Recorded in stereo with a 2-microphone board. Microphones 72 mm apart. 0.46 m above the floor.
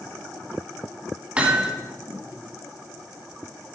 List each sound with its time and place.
1.4 s hammering: 15° right (ahead or behind), 1.6 m